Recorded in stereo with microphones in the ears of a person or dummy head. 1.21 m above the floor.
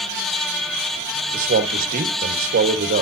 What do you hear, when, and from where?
1.3 s a man speaking: 50° right (ahead or behind), 1.3 m